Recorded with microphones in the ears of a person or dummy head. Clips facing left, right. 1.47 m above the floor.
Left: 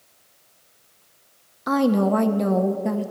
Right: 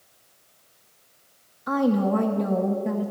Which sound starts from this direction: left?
A woman speaking, at 1.7 s.